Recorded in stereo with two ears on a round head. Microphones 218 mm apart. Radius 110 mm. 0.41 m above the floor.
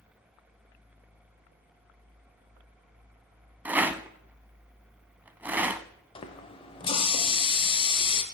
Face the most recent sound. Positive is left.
turn(degrees=20)  # may be behind; listen again after turning